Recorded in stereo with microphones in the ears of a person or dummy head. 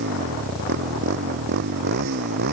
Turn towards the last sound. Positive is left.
turn(degrees=-55)  # may be behind; listen again after turning